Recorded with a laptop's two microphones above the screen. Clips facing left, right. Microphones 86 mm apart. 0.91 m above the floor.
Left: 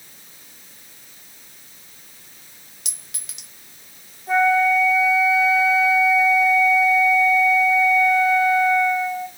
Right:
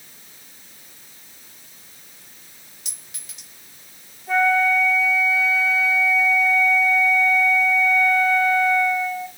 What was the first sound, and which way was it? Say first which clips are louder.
A clink: left 3 dB; 85° left.